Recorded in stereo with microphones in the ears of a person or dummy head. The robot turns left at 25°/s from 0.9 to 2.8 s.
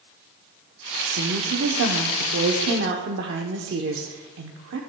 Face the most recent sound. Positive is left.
turn(degrees=-115)